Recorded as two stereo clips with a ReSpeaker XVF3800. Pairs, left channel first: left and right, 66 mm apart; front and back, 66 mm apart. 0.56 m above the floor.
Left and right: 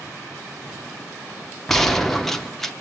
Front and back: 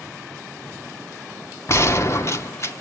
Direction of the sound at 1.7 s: 10° left.